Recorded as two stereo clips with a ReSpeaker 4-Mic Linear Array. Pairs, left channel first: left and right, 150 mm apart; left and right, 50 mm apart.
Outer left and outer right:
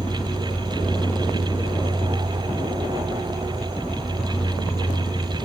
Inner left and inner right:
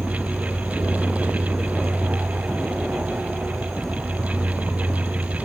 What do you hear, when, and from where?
0.0 s an insect: 5° right (ahead or behind), 3.5 m